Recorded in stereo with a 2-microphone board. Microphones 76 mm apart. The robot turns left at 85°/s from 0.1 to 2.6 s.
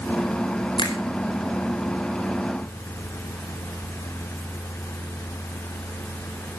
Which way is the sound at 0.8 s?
80° left.